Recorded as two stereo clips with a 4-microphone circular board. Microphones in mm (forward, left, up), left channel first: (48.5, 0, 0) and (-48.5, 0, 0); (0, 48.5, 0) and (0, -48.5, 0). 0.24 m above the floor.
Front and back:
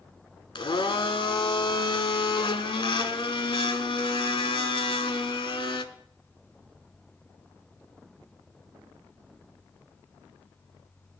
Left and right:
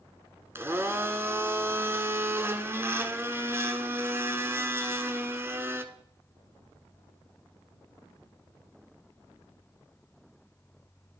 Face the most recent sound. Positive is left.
turn(degrees=-25)